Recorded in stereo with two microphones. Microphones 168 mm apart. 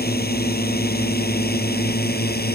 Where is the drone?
70° left (ahead or behind).